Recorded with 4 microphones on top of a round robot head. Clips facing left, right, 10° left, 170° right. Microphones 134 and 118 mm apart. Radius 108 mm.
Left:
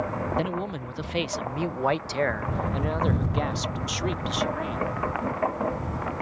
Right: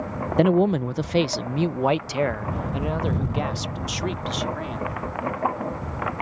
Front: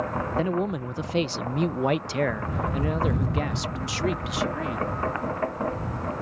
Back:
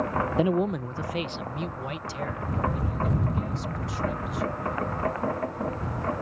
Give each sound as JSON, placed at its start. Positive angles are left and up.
{"t": 0.4, "sound": "a man speaking", "azimuth_deg": -100}